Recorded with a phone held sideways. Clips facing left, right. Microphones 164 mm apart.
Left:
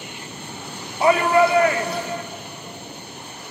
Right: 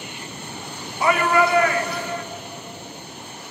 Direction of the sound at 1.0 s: 30° left (ahead or behind).